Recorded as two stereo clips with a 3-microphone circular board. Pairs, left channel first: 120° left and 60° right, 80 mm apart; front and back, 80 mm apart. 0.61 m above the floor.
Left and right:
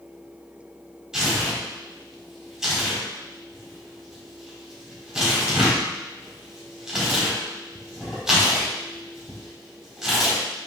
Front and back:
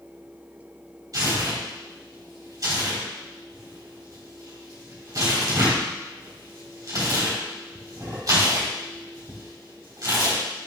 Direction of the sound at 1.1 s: 140° right.